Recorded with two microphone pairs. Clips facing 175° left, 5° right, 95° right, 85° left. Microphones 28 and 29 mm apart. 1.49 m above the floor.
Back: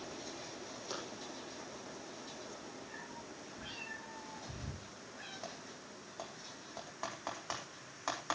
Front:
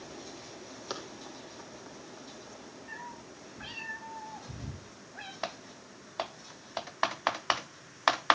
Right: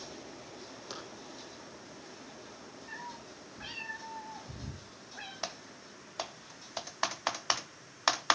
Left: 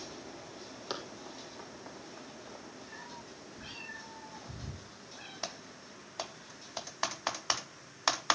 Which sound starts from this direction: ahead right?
A cat meowing, at 2.9 s.